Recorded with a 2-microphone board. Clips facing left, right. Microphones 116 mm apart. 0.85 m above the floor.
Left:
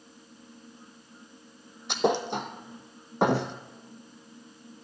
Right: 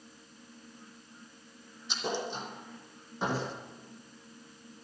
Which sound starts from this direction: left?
A thud, at 1.9 s.